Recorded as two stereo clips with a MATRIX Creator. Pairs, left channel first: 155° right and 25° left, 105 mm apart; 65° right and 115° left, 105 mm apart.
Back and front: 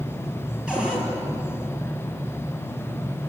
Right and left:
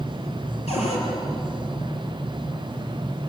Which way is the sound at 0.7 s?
60° right.